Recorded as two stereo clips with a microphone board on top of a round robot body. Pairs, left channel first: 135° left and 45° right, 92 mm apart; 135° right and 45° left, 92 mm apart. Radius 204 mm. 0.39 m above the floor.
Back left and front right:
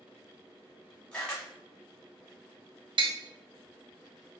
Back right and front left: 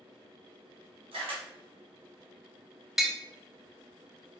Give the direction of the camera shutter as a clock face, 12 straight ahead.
10 o'clock.